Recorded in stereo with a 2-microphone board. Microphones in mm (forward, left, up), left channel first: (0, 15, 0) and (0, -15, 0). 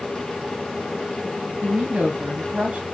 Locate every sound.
1.6 s a woman speaking: 55° right (ahead or behind), 1.9 m